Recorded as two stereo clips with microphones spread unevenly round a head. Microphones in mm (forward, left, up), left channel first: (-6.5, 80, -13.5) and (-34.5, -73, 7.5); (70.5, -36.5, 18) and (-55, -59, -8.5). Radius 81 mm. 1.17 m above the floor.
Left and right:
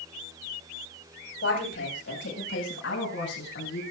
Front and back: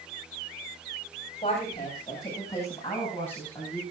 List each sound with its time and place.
1.4 s a woman speaking: 70° left, 7.5 m; by 3.8 s 90° left, 9.5 m